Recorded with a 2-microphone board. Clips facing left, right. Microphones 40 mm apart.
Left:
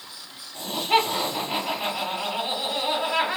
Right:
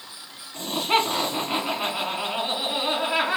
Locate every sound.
0.5 s laughter: 55° right (ahead or behind), 1.6 m